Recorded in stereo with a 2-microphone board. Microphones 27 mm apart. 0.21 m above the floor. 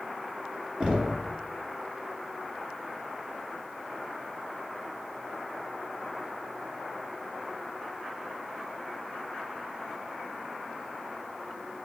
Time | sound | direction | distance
0.8 | knocking | 25° right (ahead or behind) | 1.7 m